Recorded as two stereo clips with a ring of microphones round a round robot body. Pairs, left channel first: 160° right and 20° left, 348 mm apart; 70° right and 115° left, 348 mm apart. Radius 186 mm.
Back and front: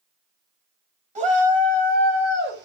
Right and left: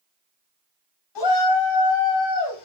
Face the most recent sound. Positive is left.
turn(degrees=-35)